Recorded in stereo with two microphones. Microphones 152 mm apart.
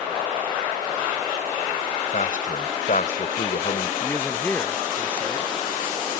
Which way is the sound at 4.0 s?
15° left (ahead or behind).